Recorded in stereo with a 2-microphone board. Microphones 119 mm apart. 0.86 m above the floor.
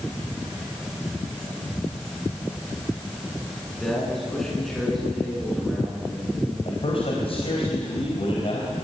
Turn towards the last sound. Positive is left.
turn(degrees=55)  # may be behind; listen again after turning